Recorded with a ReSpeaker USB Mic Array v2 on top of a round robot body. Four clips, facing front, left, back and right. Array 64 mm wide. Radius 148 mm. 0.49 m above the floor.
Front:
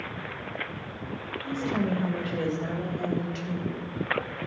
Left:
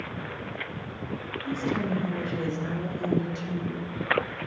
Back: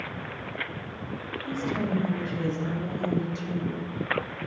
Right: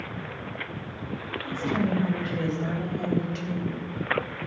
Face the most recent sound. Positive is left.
turn(degrees=-30)